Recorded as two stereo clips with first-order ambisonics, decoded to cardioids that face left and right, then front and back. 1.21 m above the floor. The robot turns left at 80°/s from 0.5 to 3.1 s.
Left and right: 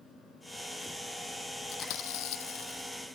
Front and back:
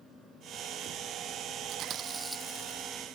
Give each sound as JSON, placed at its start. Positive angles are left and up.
{"t": 1.7, "sound": "chewing", "azimuth_deg": 140}